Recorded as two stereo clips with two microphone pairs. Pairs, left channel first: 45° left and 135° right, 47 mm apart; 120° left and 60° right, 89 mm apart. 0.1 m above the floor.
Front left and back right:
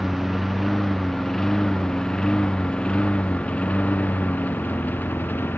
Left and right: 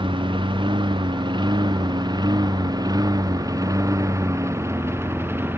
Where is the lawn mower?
45° right; by 5.6 s 5° left.